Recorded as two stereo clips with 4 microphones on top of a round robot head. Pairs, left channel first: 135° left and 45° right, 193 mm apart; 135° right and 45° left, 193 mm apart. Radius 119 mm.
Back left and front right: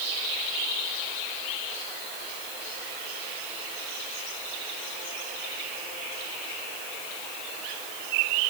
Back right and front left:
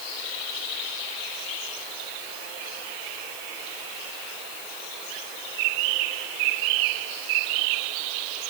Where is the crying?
No crying in this recording.